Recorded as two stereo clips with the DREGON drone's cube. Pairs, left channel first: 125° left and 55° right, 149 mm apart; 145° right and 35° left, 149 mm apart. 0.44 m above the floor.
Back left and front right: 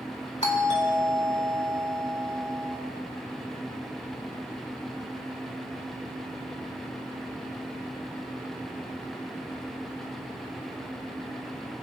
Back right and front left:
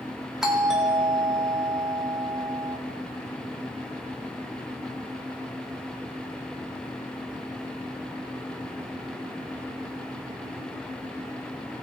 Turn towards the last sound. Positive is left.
turn(degrees=120)